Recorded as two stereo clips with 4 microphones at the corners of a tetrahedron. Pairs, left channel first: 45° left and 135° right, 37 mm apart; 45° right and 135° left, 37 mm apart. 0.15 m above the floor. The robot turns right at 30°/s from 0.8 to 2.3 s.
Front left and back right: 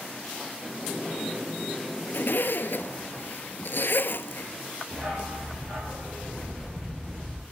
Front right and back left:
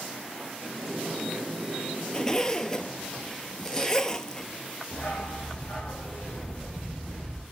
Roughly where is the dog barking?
Right.